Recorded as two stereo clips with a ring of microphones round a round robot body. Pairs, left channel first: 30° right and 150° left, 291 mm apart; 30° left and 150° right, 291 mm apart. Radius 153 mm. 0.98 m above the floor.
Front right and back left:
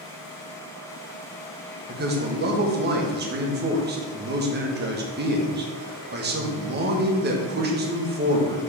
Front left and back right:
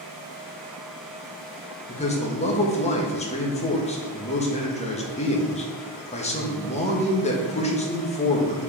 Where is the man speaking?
95° left, 1.3 m.